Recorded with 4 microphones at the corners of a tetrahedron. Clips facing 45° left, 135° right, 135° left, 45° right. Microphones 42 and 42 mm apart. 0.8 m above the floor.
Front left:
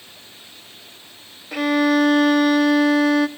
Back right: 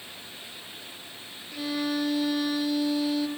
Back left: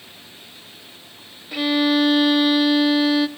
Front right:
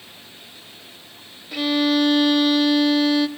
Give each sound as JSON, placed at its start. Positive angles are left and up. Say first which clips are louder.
{"t": 1.5, "sound": "a violin", "louder": "front left 12 dB, back left 1 dB", "azimuth_deg": 55, "distance_m": 0.8}